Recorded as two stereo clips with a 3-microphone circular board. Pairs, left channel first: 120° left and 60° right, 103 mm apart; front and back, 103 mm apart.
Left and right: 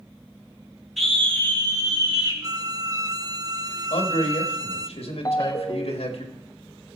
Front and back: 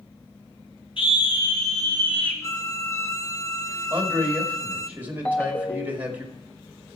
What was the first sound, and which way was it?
A scream, 30° left.